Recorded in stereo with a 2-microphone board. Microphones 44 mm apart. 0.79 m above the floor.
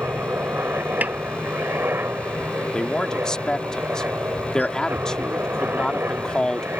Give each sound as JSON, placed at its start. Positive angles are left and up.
{"t": 0.0, "sound": "a helicopter", "side_deg": -55}
{"t": 1.0, "sound": "a snare drum", "side_deg": -40}
{"t": 2.7, "sound": "a man speaking", "side_deg": 20}